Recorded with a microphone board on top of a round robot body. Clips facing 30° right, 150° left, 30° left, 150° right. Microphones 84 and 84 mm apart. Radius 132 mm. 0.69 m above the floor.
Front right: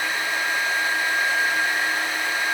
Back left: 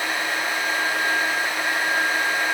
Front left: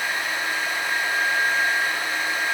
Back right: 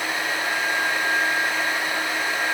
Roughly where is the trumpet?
I don't hear a trumpet.